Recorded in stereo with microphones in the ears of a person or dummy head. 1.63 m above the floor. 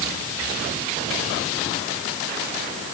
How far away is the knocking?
No knocking in this recording.